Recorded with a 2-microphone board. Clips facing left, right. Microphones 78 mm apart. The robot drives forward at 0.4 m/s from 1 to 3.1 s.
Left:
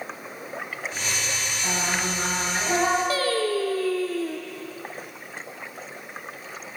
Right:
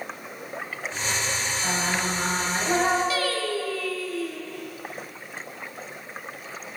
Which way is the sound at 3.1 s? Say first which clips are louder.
Left 3 dB; 40° left (ahead or behind).